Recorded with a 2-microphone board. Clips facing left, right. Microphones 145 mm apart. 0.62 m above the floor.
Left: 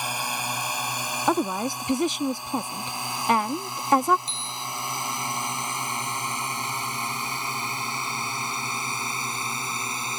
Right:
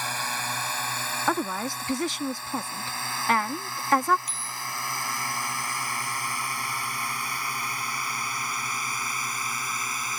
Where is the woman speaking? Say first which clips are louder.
Left 4 dB; 20° left (ahead or behind).